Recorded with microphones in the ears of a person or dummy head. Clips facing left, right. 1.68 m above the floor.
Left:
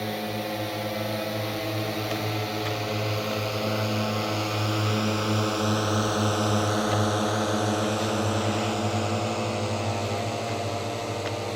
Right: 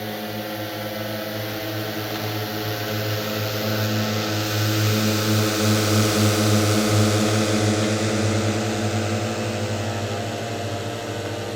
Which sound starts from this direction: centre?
A drone, at 0.0 s.